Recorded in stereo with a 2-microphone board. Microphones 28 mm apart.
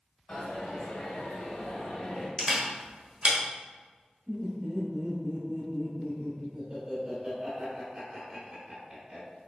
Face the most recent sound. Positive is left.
turn(degrees=-30)  # may be behind; listen again after turning